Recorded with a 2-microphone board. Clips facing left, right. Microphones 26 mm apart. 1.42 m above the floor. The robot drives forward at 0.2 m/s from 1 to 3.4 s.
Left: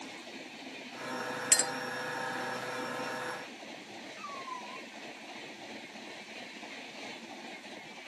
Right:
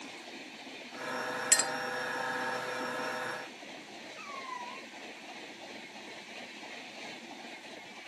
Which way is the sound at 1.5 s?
10° right (ahead or behind).